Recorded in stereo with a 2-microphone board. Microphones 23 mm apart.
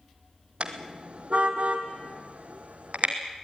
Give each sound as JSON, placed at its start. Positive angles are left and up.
{"t": 0.6, "sound": "a car horn", "side_deg": -50, "distance_m": 2.5}